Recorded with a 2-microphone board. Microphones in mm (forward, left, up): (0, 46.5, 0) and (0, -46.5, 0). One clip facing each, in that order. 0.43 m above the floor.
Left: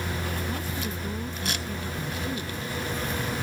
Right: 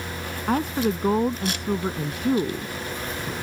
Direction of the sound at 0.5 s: 70° right (ahead or behind).